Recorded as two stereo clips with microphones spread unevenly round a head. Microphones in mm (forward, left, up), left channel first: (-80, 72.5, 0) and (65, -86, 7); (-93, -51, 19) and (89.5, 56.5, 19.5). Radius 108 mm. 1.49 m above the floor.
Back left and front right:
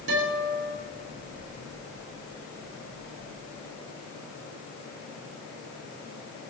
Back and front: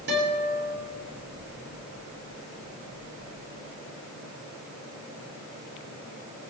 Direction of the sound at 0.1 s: 10° right.